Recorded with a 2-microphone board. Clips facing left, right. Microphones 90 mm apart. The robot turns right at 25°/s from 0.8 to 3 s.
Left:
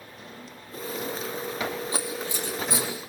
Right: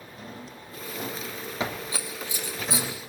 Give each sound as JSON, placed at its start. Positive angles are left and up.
{"t": 0.2, "sound": "a drawer", "side_deg": -45, "distance_m": 3.0}
{"t": 1.9, "sound": "scissors", "side_deg": -25, "distance_m": 5.5}